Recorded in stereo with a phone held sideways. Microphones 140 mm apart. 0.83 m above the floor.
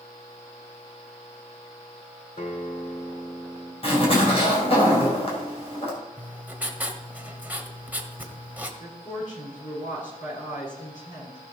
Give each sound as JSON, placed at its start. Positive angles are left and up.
{"t": 2.4, "sound": "a guitar", "side_deg": 65, "distance_m": 1.2}
{"t": 3.8, "sound": "a zipper", "side_deg": 45, "distance_m": 4.0}
{"t": 6.2, "sound": "writing", "side_deg": -10, "distance_m": 1.3}
{"t": 8.8, "sound": "a woman speaking", "side_deg": 60, "distance_m": 6.5}